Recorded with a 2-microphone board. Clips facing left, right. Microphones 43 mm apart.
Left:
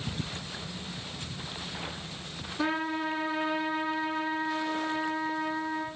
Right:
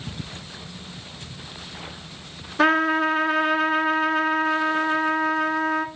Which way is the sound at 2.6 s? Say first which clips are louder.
Right 11 dB; 80° right.